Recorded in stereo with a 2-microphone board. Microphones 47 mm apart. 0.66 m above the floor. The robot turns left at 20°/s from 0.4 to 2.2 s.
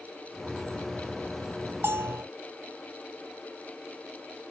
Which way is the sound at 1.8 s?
50° right (ahead or behind).